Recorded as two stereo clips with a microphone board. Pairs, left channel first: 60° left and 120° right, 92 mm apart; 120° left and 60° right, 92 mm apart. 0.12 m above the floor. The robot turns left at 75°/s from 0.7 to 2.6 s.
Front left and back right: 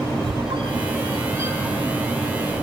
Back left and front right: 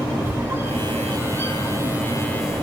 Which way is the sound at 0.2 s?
125° right.